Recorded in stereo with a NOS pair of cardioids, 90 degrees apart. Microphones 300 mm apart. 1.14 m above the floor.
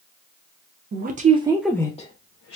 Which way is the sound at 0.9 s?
35° right.